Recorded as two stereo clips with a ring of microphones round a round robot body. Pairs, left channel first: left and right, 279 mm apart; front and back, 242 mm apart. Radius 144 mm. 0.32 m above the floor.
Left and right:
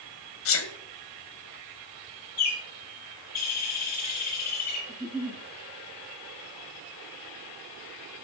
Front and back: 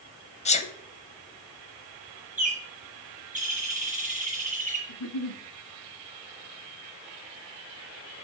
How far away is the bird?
About 5 m.